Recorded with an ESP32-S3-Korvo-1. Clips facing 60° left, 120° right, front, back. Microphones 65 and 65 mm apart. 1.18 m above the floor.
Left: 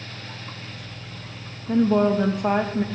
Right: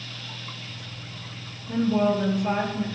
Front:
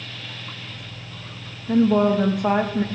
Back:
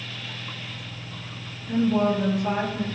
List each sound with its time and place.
1.7 s a woman speaking: 30° left, 1.4 m